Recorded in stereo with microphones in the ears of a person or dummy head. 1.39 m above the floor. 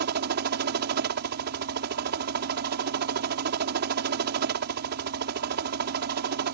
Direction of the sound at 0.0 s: 50° right (ahead or behind).